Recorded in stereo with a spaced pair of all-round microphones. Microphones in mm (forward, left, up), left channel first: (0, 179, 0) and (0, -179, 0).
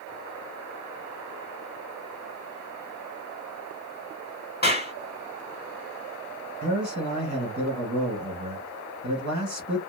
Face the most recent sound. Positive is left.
turn(degrees=-45)  # may be behind; listen again after turning